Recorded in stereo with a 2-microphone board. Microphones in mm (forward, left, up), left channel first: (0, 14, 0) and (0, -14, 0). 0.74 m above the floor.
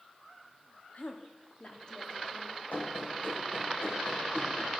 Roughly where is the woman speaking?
Left.